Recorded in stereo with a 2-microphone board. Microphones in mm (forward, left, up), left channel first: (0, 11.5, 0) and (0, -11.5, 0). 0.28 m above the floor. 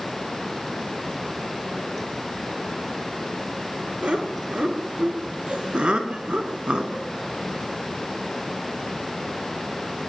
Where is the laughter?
55° right (ahead or behind), 5.5 m; by 7.1 s 40° right (ahead or behind), 3.5 m.